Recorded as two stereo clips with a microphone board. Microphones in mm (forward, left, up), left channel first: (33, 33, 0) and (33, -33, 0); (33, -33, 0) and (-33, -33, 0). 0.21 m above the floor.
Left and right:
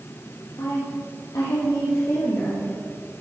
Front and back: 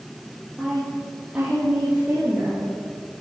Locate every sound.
0.6 s a woman speaking: 100° left, 5 m; by 2.8 s 115° left, 5 m